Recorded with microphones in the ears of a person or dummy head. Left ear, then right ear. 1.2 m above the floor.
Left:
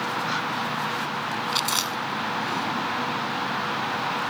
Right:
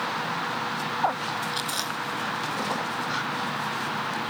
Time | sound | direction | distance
1.5 | chewing | 75° left (ahead or behind) | 5 m